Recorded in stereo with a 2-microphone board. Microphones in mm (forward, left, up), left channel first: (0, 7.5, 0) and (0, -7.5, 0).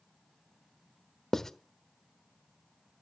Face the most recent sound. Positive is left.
turn(degrees=25)  # may be behind; listen again after turning